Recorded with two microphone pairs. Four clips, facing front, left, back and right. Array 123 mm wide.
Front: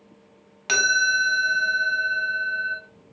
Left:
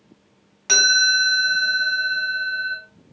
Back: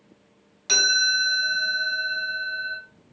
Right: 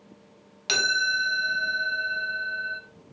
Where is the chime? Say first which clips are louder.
Left 6 dB, front 4 dB; 25° left, 0.8 m.